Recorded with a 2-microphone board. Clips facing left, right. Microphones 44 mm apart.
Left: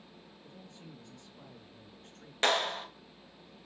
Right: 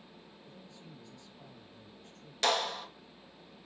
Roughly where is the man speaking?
Left.